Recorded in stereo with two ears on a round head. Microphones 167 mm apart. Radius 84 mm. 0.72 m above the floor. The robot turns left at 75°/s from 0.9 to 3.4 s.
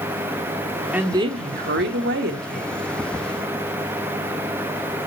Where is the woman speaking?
5° right, 1.7 m; by 2.6 s 135° right, 1.7 m.